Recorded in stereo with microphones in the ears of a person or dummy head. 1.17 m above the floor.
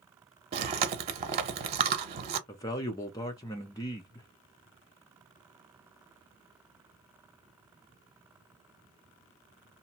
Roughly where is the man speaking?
Centre.